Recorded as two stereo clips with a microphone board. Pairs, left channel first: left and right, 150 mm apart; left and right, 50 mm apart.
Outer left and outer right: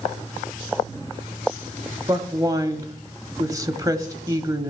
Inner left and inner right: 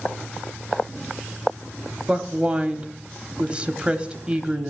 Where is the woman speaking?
25° right (ahead or behind), 1.0 m.